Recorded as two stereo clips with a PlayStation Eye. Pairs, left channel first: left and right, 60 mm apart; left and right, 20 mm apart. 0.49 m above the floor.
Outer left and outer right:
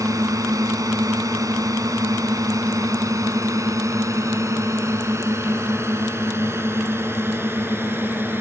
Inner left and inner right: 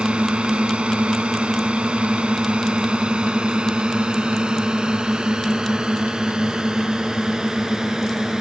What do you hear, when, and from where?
0.0 s a drone: 75° right (ahead or behind); by 8.4 s 40° right (ahead or behind)